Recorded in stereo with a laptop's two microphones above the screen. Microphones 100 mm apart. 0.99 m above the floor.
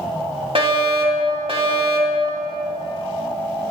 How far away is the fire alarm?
About 3 m.